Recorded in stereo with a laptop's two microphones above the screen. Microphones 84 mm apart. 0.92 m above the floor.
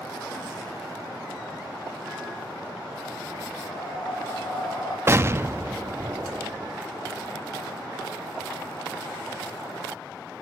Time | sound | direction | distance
3.6 | breathing | 80° left | 7 m
5.1 | an explosion | 30° right (ahead or behind) | 0.7 m